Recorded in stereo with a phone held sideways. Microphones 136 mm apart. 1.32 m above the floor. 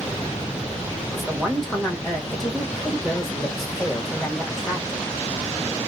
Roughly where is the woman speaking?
Centre.